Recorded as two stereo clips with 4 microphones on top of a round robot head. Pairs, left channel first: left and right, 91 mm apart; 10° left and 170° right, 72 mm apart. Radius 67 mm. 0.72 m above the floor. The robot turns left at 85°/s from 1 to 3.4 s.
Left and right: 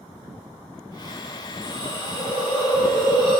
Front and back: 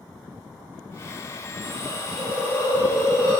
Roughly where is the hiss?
Left.